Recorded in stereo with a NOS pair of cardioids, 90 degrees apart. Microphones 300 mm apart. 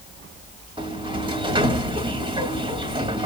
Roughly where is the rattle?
I don't hear a rattle.